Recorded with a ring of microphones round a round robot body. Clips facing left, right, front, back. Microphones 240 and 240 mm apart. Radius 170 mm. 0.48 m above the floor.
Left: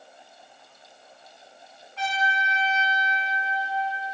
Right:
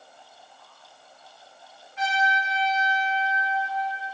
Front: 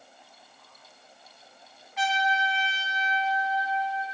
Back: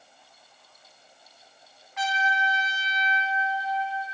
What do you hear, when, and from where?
2.0 s a trumpet: 145° left, 1.1 m